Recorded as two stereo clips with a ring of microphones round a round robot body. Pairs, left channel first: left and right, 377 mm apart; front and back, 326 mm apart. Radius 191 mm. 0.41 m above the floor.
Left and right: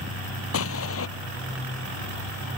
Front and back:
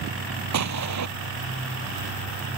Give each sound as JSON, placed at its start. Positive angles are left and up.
{"t": 0.5, "sound": "an explosion", "azimuth_deg": 145}